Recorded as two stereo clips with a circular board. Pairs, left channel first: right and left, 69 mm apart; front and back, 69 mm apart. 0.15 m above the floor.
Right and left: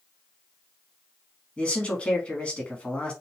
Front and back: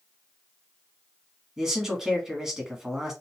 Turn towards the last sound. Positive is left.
turn(degrees=-115)